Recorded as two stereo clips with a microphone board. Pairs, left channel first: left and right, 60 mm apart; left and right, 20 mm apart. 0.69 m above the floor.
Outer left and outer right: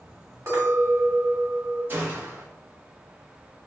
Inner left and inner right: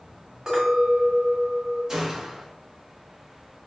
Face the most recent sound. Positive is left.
turn(degrees=-35)  # may be behind; listen again after turning